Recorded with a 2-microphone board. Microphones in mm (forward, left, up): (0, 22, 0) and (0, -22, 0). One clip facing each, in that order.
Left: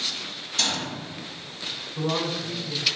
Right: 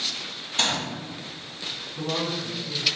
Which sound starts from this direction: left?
A woman speaking, at 2.0 s.